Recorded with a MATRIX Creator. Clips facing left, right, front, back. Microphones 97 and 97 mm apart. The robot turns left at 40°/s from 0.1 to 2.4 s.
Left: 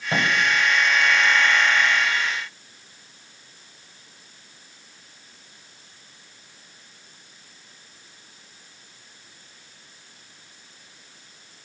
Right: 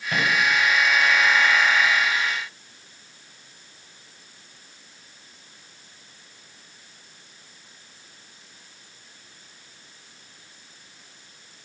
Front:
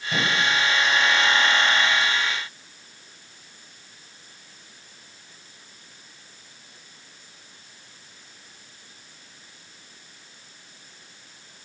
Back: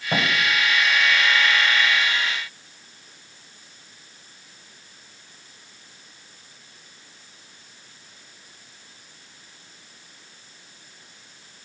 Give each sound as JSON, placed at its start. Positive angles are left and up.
{"t": 0.1, "sound": "a thud", "azimuth_deg": 150, "distance_m": 3.0}